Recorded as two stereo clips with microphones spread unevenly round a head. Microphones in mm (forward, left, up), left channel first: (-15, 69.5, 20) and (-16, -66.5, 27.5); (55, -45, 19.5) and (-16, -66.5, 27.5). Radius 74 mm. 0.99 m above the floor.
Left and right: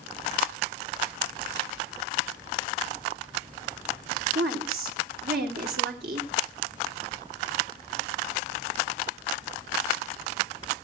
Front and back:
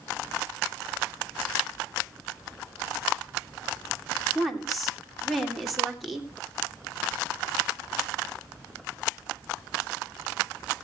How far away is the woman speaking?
About 2.5 m.